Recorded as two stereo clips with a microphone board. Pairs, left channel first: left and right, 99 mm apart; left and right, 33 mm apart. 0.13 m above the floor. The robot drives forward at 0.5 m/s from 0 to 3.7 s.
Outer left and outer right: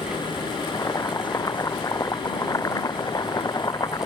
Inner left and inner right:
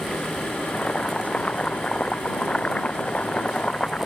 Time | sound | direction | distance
0.7 | boiling | 30° left (ahead or behind) | ?